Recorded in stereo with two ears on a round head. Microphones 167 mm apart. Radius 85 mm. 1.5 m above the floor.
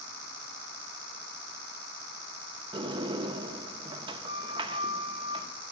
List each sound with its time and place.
2.7 s a sliding door: 25° right (ahead or behind), 0.8 m